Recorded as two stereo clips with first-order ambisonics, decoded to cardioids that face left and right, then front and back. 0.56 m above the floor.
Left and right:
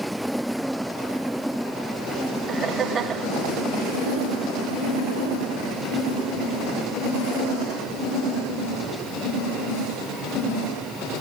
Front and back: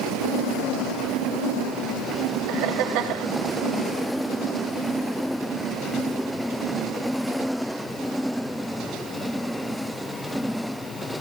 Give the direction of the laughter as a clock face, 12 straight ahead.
5 o'clock.